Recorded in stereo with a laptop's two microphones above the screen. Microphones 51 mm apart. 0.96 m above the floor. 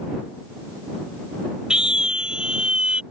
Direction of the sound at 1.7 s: 15° right (ahead or behind).